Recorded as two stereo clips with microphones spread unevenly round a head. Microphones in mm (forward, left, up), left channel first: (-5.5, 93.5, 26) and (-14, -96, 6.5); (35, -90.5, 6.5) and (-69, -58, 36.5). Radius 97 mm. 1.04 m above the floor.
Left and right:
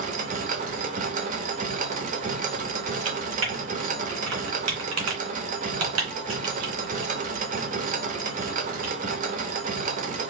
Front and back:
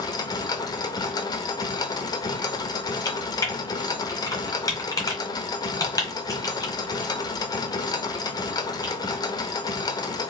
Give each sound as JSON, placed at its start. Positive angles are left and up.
{"t": 0.0, "sound": "a machine running", "azimuth_deg": -70, "distance_m": 0.8}
{"t": 3.0, "sound": "typing on a keyboard", "azimuth_deg": -80, "distance_m": 1.9}